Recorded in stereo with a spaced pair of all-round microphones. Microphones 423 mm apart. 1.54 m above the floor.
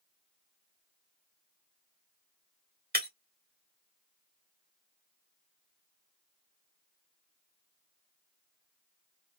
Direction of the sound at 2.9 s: 20° right (ahead or behind).